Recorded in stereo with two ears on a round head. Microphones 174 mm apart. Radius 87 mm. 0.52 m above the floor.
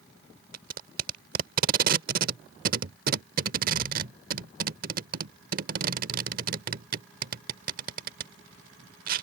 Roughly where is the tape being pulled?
Right.